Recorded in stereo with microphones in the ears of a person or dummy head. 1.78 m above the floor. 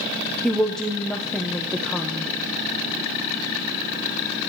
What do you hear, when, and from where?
0.4 s a woman speaking: 10° left (ahead or behind), 1.1 m